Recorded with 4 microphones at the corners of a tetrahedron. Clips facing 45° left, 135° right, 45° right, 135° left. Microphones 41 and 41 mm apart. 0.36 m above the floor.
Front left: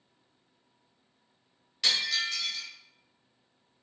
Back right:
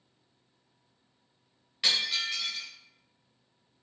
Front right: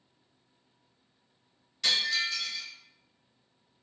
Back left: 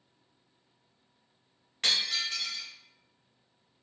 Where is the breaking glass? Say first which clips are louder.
Even, front right 2 dB; 155° left, 0.8 m.